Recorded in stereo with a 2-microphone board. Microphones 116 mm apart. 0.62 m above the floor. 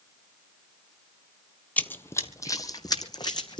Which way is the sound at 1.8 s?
15° left (ahead or behind).